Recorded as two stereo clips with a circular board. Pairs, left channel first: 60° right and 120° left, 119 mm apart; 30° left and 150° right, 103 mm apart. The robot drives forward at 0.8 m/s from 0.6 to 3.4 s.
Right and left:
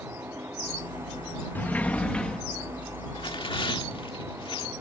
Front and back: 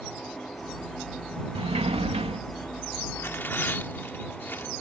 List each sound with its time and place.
1.6 s a sliding door: 135° right; by 2.4 s 145° right
3.1 s tearing paper: 30° right; by 4.7 s 35° right